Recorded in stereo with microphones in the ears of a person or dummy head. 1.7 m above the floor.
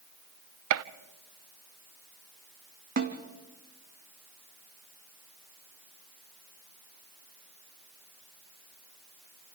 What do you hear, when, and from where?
0.7 s a gunshot: 65° right (ahead or behind), 0.6 m
3.0 s a snare drum: 50° right (ahead or behind), 2.0 m